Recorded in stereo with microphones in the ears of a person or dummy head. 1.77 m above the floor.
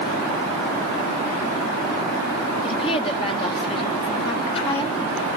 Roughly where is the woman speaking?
Left.